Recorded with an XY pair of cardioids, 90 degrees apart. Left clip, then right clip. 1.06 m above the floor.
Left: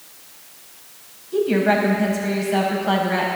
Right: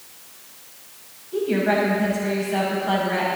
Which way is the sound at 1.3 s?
30° left.